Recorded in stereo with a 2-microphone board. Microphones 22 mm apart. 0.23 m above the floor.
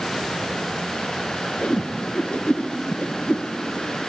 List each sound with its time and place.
1.6 s a whoosh: 65° left (ahead or behind), 2 m